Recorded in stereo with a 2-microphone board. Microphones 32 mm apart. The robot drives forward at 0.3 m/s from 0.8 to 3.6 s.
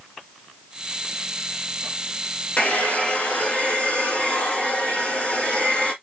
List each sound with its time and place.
2.6 s a hair dryer: 45° left (ahead or behind), 1.6 m; by 5.9 s 35° left (ahead or behind), 1.9 m